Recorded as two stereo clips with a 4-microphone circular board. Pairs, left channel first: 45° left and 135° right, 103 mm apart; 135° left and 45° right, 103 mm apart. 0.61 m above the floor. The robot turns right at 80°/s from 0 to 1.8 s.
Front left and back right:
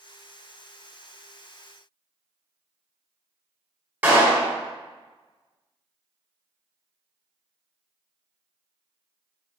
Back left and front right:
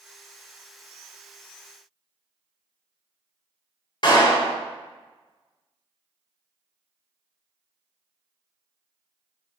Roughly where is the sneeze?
I don't hear a sneeze.